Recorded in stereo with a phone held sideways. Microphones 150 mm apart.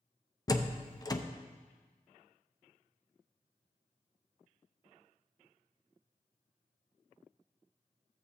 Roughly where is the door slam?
Left.